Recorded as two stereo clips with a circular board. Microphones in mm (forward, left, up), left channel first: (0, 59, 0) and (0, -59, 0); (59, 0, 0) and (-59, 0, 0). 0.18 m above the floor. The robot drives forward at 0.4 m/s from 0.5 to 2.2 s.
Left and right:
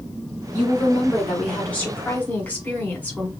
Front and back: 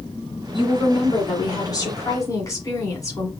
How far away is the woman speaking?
About 2 m.